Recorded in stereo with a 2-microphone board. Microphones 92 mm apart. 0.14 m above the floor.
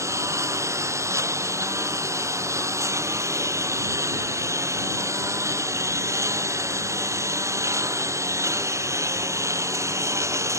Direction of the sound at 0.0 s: 35° right (ahead or behind).